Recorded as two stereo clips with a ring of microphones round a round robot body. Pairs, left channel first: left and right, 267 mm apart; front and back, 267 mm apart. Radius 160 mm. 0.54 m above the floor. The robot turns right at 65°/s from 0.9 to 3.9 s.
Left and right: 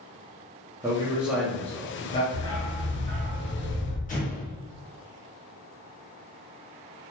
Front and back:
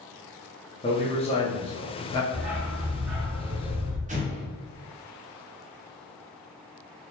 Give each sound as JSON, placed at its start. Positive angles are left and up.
{"t": 0.8, "sound": "a man speaking", "azimuth_deg": -30, "distance_m": 0.7}
{"t": 2.3, "sound": "a dog barking", "azimuth_deg": 105, "distance_m": 1.3}
{"t": 4.1, "sound": "an explosion", "azimuth_deg": 135, "distance_m": 0.8}